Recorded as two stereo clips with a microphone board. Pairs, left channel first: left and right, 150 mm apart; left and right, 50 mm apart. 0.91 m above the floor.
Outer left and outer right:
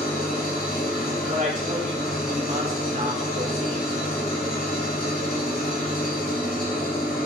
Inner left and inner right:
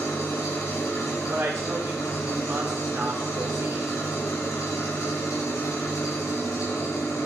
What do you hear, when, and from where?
0.0 s an engine running: 80° left, 3 m
1.3 s a woman speaking: 60° right (ahead or behind), 3 m